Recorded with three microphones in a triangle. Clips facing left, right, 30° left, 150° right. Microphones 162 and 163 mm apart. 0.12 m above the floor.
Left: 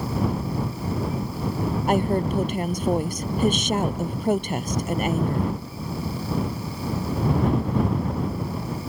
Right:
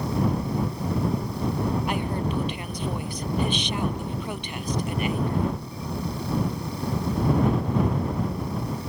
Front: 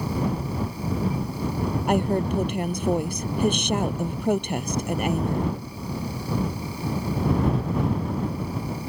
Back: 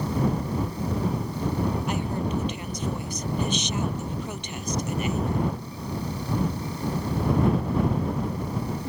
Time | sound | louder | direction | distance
1.9 | a woman speaking | left 6 dB, front 5 dB | 55° left | ?